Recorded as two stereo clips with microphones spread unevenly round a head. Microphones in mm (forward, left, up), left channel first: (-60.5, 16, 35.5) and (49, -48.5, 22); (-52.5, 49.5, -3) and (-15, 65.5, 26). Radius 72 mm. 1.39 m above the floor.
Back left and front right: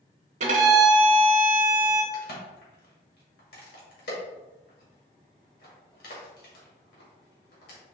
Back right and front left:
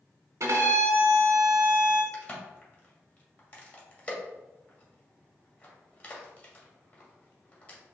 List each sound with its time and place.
0.4 s a violin: 10° left, 0.7 m
2.1 s a crack: 150° left, 2.0 m